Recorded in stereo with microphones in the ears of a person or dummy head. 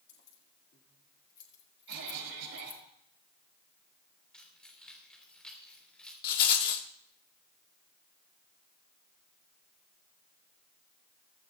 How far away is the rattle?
About 1.4 m.